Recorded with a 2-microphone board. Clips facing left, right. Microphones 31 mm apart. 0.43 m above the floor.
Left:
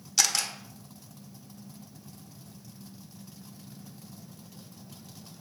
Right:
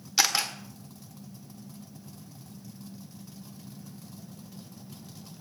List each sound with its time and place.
0.2 s a camera shutter: 15° right (ahead or behind), 1.1 m